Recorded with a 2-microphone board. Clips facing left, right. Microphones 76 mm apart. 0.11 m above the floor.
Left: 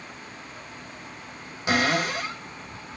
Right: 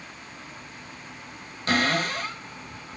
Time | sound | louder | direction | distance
1.7 | a cupboard door | left 1 dB | 10° left (ahead or behind) | 1.2 m